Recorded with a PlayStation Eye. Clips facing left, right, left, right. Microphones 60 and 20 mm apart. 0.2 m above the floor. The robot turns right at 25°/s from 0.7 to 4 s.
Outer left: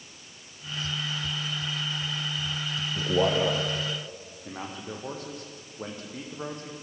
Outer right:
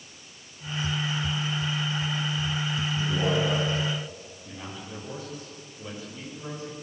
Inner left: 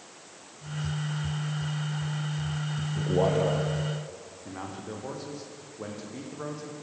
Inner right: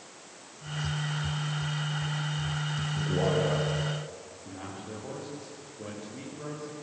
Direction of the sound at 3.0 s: 60° left (ahead or behind).